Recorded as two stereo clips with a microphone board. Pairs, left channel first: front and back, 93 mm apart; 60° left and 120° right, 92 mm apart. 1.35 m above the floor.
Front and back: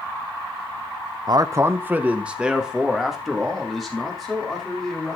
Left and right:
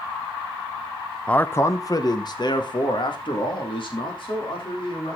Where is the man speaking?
140° left, 0.6 m; by 5.2 s 85° left, 3.5 m.